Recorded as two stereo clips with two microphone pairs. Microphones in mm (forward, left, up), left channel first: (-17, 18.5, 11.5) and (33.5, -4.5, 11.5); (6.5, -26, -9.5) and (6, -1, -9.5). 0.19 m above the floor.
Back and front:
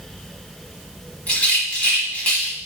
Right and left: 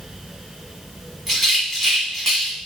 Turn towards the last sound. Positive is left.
turn(degrees=-165)